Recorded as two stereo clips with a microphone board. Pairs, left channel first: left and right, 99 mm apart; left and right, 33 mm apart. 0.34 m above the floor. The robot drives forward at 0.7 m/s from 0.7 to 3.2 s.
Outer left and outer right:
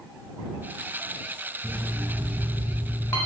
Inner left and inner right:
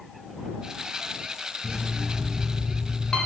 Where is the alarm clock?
50° left (ahead or behind), 0.7 m; by 3.2 s 25° left (ahead or behind), 1.2 m.